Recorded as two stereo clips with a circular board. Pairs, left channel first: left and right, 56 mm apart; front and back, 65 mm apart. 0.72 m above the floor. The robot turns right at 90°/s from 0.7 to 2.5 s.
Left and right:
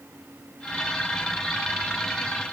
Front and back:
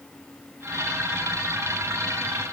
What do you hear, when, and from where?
Only background noise.